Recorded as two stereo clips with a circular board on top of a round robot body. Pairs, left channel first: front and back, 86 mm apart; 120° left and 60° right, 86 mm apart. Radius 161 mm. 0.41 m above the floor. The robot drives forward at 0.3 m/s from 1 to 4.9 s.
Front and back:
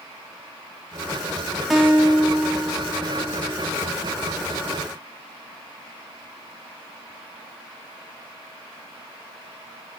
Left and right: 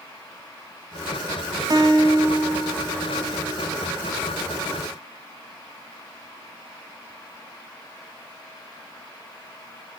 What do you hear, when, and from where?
1.7 s a guitar: 95° right, 0.7 m; by 3.8 s 140° right, 0.9 m